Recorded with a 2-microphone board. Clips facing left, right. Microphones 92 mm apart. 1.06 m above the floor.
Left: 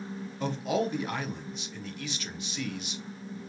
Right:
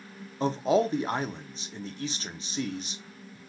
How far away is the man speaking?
About 0.5 m.